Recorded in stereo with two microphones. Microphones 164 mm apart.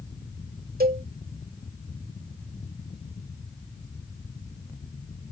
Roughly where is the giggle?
I don't hear a giggle.